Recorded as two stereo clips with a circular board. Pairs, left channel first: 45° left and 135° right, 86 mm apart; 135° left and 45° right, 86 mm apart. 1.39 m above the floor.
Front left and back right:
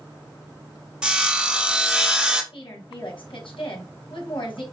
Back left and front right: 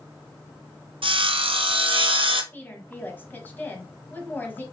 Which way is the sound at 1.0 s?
55° right.